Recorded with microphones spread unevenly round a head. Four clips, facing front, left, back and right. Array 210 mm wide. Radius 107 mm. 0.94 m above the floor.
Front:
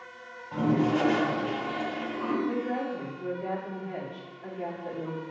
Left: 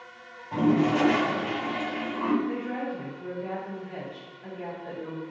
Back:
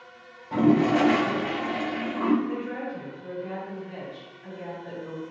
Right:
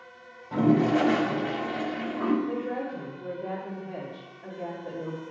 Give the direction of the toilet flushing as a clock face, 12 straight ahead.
5 o'clock.